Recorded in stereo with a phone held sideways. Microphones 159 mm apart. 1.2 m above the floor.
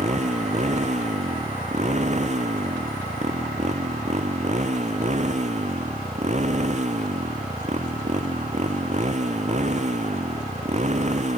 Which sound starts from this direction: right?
A motorcycle, at 0.0 s.